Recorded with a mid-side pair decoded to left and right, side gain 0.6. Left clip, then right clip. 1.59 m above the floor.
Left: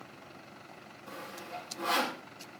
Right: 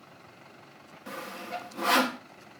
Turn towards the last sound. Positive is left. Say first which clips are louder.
# right 6 dB
turn(degrees=-65)